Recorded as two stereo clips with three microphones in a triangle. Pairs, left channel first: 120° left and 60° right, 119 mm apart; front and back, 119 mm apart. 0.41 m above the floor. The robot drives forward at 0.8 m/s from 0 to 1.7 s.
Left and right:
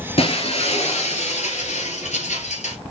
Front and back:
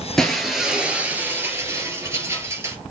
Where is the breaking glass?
85° left, 2.5 m; by 2.8 s 115° left, 2.5 m.